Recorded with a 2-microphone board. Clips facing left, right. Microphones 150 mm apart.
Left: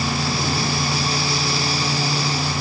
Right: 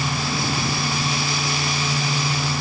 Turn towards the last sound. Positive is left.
No sound to turn to.